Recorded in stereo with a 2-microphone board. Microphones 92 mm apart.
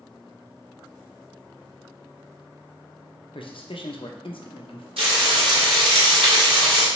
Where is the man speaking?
70° left (ahead or behind), 0.7 m.